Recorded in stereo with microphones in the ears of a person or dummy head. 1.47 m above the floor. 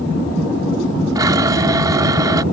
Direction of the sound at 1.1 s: 25° right (ahead or behind).